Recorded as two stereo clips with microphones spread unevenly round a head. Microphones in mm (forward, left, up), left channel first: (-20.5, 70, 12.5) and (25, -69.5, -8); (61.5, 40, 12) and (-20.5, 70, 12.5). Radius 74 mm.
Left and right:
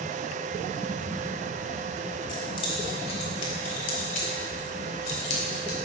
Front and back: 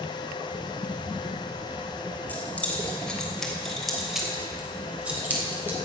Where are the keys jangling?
50° left, 3.5 m; by 5.8 s 95° left, 4 m.